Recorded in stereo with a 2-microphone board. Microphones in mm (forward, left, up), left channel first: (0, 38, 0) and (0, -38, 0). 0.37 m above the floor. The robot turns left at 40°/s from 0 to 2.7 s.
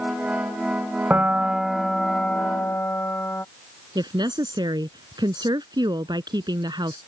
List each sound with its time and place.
1.1 s a piano: 150° right; by 3.5 s 145° left
4.0 s a woman speaking: 75° right (ahead or behind)